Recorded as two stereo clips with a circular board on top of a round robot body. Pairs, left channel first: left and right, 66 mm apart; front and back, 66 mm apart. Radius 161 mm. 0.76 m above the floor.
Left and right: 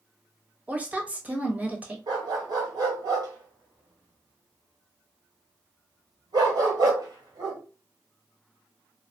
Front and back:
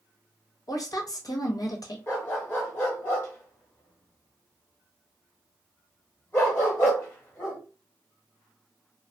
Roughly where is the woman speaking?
Ahead.